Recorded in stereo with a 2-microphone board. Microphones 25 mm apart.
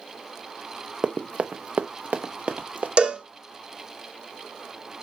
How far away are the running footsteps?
About 0.6 m.